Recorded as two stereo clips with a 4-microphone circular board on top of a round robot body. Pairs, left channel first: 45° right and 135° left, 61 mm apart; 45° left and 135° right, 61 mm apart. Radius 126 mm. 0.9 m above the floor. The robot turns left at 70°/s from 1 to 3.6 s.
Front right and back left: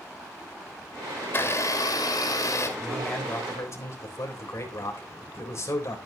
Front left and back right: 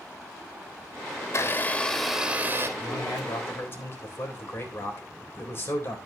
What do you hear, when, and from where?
1.2 s a blender: 15° left, 2 m; by 2.7 s 90° right, 2 m
2.8 s a man speaking: 55° left, 4 m; by 6.0 s 5° right, 4 m